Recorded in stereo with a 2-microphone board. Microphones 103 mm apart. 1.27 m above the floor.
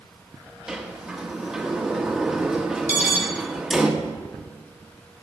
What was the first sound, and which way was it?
A sliding door, 5° right (ahead or behind).